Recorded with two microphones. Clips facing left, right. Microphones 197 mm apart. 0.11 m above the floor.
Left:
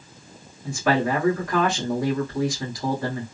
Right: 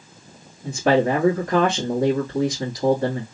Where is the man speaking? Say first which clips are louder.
Right 4 dB; 40° right (ahead or behind), 1.5 m.